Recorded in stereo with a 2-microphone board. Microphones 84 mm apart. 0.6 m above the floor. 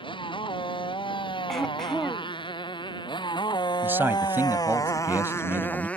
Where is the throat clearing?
5° left (ahead or behind).